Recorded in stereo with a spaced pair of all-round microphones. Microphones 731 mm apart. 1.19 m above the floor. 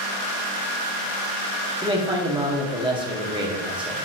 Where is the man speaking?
5° right (ahead or behind), 1.3 m.